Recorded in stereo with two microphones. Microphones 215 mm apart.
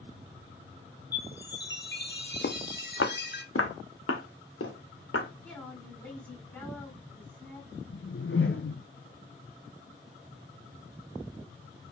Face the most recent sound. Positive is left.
turn(degrees=65)  # may be behind; listen again after turning